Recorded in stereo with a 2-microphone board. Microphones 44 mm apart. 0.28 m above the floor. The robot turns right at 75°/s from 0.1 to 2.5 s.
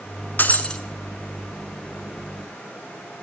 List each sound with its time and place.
0.4 s breaking glass: 135° left, 0.7 m; by 0.8 s 165° left, 0.7 m